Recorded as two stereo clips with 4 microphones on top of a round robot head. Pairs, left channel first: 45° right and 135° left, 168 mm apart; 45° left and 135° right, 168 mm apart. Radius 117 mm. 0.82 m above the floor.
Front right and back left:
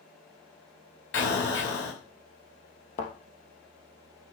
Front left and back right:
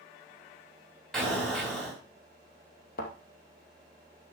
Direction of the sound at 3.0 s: 5° left.